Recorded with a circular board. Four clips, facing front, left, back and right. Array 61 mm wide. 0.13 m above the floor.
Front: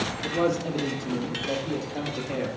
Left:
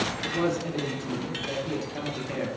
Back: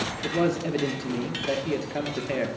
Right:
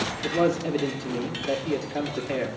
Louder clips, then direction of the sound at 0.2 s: Right 6 dB, back 1 dB; 155° right.